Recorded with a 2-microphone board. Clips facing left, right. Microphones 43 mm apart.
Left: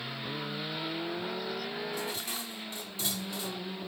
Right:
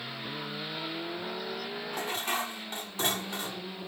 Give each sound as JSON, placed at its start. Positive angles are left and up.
{"t": 1.9, "sound": "dishes clattering", "side_deg": -50}